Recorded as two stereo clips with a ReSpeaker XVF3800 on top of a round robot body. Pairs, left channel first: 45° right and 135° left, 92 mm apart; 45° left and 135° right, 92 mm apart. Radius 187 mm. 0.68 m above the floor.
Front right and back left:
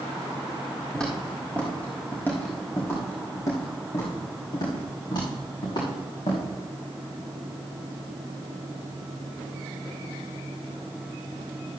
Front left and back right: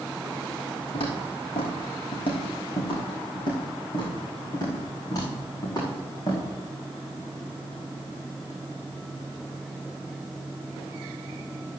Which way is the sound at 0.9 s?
40° left.